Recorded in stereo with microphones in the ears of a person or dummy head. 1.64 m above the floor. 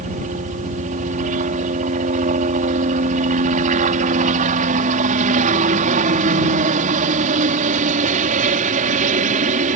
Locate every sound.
0.0 s a helicopter: 50° right (ahead or behind)